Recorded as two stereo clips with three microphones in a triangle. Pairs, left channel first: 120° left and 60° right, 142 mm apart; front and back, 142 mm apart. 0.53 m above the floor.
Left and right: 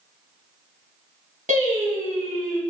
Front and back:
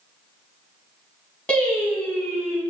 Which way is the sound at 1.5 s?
80° right.